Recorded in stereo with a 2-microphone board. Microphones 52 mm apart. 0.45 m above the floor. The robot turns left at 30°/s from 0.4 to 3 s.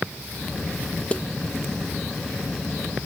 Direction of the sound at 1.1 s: 25° left (ahead or behind).